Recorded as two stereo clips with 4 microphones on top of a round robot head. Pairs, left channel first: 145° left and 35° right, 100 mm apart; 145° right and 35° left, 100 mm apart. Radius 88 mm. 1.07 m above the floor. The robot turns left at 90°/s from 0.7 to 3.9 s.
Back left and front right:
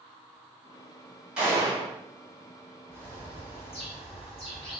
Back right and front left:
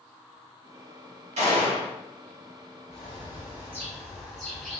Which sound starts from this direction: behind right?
A bird, at 2.9 s.